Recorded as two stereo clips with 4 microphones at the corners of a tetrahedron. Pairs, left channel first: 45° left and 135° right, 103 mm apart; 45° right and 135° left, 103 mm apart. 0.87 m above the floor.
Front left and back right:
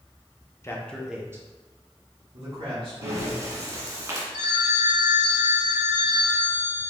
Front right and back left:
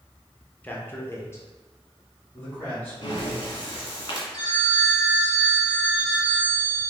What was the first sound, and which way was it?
A man speaking, 15° left.